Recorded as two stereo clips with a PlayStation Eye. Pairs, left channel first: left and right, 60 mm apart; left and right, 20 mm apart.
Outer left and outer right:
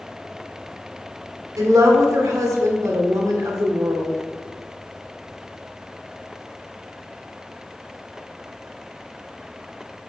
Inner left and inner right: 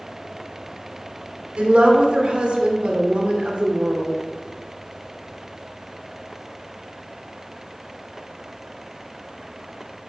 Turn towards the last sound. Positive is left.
turn(degrees=-70)  # may be behind; listen again after turning